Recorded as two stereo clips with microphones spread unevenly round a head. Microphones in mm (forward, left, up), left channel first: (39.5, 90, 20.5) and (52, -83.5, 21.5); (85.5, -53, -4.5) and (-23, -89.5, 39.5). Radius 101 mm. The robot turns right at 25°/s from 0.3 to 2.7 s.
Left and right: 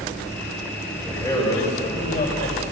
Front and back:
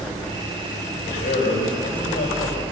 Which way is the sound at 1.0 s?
15° left.